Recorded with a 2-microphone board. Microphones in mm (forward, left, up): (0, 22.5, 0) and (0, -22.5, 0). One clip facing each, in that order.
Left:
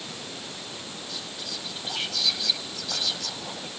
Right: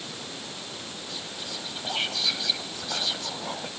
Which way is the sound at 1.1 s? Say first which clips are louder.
Right 1 dB; 25° right (ahead or behind).